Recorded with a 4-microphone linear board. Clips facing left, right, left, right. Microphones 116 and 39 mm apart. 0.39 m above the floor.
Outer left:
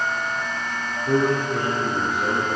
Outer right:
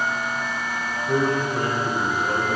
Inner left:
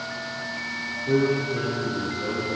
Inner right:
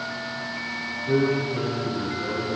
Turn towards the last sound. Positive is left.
turn(degrees=75)  # may be behind; listen again after turning